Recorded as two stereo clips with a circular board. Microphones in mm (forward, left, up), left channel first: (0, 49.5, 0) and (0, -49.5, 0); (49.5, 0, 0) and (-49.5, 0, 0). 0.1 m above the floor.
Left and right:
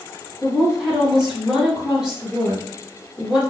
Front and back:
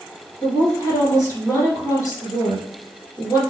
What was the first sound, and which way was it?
A woman speaking, 10° right.